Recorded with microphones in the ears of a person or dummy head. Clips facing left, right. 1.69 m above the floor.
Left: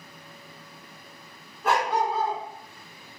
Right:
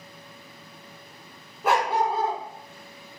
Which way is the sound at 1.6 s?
5° right (ahead or behind).